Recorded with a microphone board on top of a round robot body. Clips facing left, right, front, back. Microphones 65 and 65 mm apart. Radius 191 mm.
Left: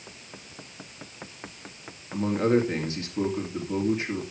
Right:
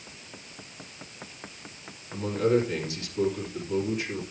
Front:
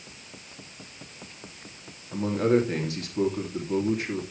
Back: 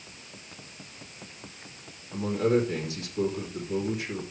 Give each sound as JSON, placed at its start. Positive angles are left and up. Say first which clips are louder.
{"t": 2.1, "sound": "a man speaking", "louder": "left 1 dB, front 2 dB", "azimuth_deg": 35, "distance_m": 3.0}